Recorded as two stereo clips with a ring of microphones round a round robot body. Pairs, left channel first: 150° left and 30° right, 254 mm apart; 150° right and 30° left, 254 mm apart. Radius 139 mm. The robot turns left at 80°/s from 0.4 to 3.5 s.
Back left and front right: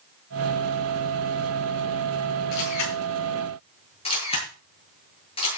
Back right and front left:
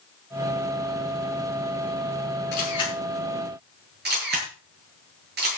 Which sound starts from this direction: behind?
A camera shutter, at 2.5 s.